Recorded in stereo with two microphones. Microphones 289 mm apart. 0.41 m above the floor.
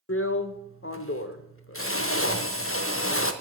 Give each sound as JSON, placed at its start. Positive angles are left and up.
{"t": 0.1, "sound": "a drill", "side_deg": 50, "distance_m": 0.7}